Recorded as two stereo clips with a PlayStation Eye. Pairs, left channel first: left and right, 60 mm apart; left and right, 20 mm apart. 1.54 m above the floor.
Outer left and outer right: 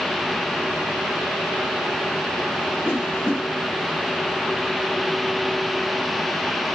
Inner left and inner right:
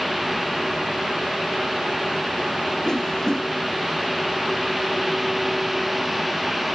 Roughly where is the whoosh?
Left.